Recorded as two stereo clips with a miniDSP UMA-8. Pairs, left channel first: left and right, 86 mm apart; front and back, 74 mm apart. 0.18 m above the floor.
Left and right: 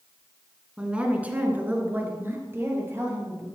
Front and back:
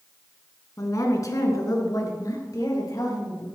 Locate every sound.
0.8 s a woman speaking: 15° right, 1.8 m; by 3.5 s 35° right, 4 m